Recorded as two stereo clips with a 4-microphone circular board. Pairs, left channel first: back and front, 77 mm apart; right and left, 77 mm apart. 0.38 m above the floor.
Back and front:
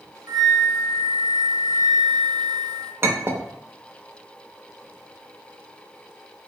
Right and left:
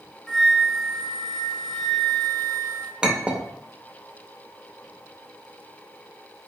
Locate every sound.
0.3 s a flute: straight ahead, 0.7 m
3.0 s a clink: 20° left, 0.5 m